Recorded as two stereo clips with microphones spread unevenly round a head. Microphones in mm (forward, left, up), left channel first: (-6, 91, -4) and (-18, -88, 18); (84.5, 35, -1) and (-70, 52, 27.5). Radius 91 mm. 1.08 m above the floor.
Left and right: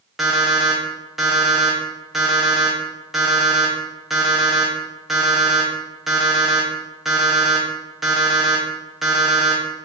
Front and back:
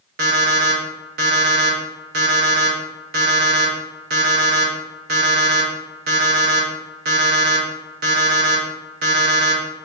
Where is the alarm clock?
Straight behind, 0.5 m.